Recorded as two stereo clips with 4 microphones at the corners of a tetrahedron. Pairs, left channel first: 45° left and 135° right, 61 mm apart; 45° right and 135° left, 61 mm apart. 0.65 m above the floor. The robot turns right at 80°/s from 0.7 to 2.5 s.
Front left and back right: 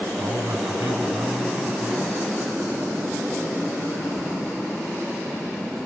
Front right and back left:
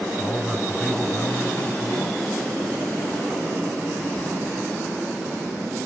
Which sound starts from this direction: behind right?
A man speaking, at 0.2 s.